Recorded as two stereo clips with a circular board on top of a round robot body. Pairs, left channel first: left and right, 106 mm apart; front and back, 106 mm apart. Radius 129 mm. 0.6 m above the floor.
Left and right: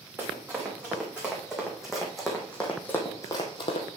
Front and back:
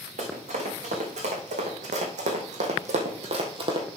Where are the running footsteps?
165° right, 3.5 m; by 3.9 s 125° left, 1.2 m.